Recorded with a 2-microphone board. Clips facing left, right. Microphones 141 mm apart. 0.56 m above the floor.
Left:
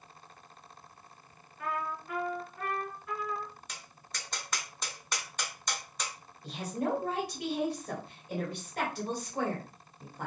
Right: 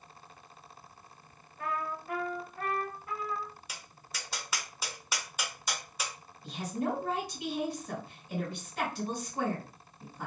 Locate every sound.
1.6 s a trumpet: 60° right (ahead or behind), 1.2 m
3.7 s tapping: 5° right (ahead or behind), 0.6 m
6.4 s a woman speaking: 60° left (ahead or behind), 1.7 m